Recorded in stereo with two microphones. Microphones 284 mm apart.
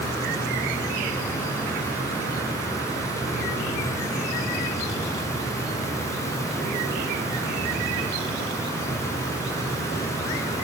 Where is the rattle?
No rattle in this recording.